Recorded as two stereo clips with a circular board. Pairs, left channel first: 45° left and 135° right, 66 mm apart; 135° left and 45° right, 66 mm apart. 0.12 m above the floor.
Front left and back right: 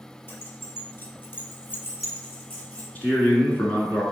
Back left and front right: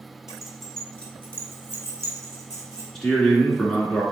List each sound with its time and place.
0.3 s keys jangling: 30° left, 1.0 m; by 2.9 s 110° left, 2.5 m
3.0 s a man speaking: 60° left, 1.1 m